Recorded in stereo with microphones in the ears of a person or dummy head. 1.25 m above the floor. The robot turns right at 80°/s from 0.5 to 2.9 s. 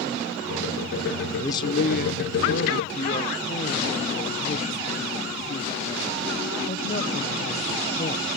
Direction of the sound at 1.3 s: 10° left.